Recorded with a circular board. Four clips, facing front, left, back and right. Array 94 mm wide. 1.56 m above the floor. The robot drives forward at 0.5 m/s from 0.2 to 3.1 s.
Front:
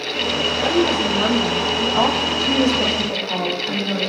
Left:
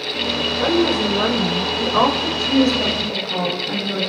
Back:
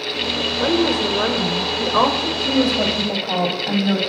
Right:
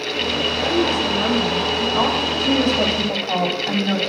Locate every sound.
0.6 s a woman speaking: 145° left, 5 m; by 2.3 s 150° left, 5.5 m
2.4 s a woman speaking: 150° right, 9.5 m; by 4.0 s 155° right, 9.5 m